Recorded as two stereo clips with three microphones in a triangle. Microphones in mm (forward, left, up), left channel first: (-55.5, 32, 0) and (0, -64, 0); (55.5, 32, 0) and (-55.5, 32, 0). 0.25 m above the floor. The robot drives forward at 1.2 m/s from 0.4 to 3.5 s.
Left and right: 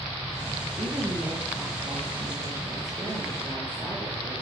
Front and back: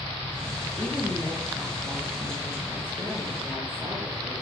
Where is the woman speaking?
80° right, 5.5 m; by 4.3 s 115° right, 5.5 m.